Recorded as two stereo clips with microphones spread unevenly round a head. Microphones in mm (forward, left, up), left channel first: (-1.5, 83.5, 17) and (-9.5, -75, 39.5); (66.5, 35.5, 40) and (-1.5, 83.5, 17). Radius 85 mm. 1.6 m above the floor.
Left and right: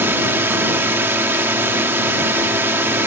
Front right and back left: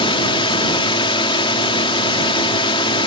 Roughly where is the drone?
Ahead.